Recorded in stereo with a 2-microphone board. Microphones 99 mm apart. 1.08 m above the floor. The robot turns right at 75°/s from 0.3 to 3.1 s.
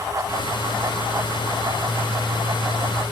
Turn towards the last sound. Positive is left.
No sound to turn to.